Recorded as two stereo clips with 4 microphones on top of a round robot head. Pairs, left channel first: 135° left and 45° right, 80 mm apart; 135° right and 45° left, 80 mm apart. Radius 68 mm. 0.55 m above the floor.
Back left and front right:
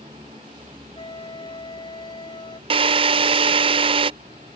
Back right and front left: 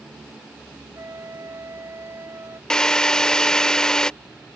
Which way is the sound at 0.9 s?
105° left.